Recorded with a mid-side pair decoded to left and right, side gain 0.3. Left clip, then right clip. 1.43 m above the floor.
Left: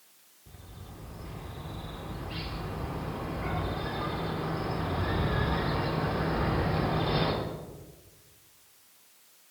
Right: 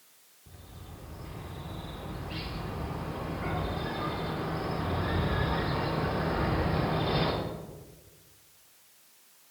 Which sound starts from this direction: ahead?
A bird, at 0.5 s.